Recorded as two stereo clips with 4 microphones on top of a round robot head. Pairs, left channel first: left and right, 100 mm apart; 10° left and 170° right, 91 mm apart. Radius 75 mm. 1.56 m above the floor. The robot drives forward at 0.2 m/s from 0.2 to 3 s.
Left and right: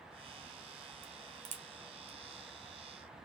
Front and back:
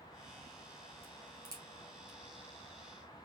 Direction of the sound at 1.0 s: 100° right.